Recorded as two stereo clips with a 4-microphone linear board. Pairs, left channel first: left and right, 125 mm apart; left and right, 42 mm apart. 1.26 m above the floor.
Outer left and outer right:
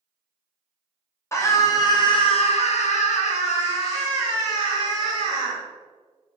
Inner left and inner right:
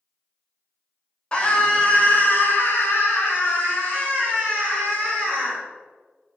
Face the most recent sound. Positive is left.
turn(degrees=30)  # may be behind; listen again after turning